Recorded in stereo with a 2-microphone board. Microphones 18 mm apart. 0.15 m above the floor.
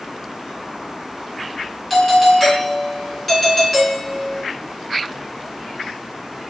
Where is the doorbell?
Centre (ahead or behind), 2.5 m.